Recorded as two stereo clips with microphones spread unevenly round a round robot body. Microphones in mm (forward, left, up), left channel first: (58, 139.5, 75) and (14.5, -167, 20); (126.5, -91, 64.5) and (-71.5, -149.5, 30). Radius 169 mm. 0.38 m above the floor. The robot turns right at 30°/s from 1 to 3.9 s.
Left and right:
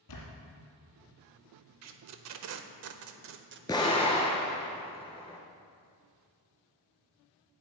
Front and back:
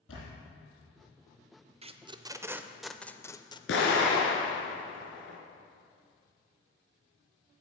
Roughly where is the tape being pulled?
Right.